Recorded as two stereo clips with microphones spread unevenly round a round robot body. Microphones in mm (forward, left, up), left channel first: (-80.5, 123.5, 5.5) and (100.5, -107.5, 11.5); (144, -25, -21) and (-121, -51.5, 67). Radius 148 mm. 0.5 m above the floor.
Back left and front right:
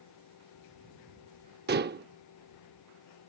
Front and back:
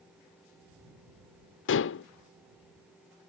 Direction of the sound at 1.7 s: Straight ahead.